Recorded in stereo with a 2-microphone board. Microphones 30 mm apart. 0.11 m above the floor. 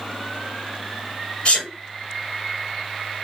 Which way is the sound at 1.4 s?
45° left (ahead or behind).